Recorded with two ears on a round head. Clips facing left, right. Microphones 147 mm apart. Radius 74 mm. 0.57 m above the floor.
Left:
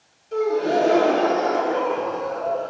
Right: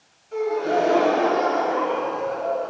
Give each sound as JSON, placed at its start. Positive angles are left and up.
{"t": 0.3, "sound": "a gasp", "side_deg": 40, "distance_m": 1.5}